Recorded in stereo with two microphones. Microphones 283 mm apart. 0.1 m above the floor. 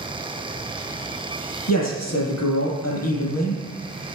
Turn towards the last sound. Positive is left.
turn(degrees=65)  # may be behind; listen again after turning